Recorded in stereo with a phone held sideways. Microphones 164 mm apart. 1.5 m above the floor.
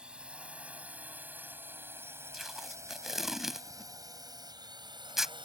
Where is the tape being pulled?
Centre (ahead or behind).